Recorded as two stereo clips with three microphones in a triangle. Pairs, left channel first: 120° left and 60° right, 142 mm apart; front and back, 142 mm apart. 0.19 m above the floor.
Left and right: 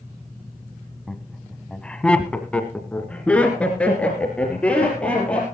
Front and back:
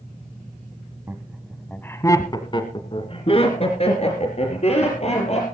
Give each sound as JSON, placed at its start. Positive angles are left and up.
{"t": 1.1, "sound": "laughter", "azimuth_deg": -155, "distance_m": 1.3}